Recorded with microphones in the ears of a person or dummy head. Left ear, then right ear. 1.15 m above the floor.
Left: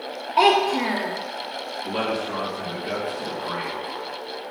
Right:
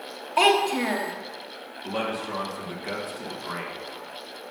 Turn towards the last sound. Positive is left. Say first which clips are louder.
# left 2 dB
turn(degrees=-25)  # may be behind; listen again after turning